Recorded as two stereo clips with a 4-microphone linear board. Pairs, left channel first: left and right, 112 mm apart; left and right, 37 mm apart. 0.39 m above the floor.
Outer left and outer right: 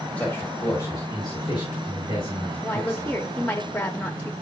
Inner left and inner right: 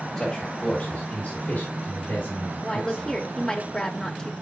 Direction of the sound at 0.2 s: 15° left (ahead or behind).